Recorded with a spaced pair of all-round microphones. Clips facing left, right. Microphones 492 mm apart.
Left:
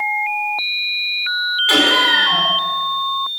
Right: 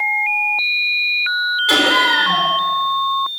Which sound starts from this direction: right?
Laughter, at 1.7 s.